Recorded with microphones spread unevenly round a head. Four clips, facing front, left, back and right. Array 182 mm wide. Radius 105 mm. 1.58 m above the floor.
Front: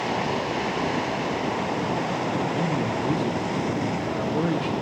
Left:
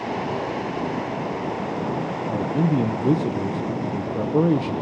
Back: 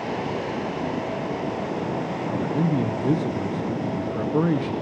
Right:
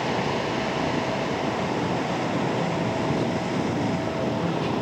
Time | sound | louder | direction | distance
2.3 | a man speaking | left 3 dB, back 5 dB | 110° left | 1.3 m